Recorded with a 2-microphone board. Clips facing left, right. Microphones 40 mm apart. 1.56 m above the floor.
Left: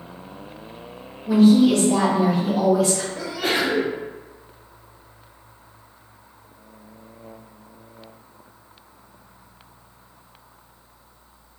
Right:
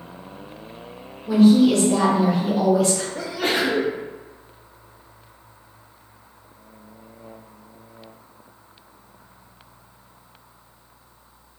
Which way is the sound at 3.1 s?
45° right (ahead or behind).